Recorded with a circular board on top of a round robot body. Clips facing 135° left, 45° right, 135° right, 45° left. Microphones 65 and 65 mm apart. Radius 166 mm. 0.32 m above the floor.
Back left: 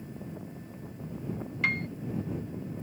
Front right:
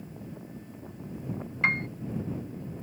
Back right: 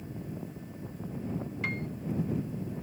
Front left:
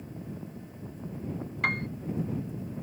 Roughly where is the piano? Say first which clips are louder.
Front right 3 dB, front left 7 dB; ahead.